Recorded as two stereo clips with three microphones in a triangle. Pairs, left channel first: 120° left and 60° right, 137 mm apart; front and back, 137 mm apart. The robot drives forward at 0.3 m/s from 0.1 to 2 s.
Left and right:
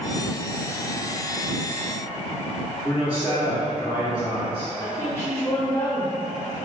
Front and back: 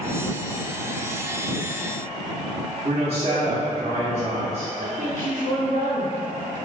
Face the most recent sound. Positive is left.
turn(degrees=-170)